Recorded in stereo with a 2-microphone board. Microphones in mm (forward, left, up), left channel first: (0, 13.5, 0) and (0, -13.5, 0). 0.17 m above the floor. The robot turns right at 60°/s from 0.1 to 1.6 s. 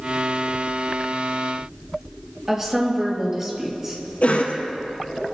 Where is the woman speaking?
15° right (ahead or behind), 4.5 m.